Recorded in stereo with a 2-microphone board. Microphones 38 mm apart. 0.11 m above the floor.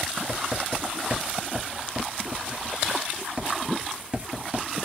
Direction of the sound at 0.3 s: 35° right (ahead or behind).